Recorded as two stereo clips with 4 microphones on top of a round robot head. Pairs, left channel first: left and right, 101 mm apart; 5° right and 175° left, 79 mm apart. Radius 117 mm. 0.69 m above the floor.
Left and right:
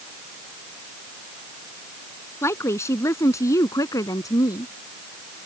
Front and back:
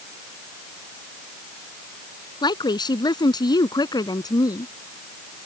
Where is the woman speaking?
20° left; by 4.7 s 30° left.